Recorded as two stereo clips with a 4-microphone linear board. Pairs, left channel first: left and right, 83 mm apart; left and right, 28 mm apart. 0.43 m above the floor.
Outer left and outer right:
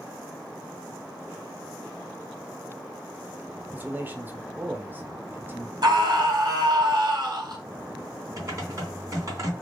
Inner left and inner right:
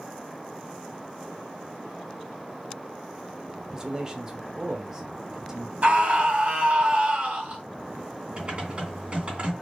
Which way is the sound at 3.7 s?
25° right (ahead or behind).